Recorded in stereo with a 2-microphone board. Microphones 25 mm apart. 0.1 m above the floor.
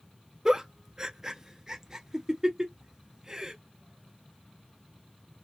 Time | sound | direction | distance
0.5 | a giggle | 25° right (ahead or behind) | 0.5 m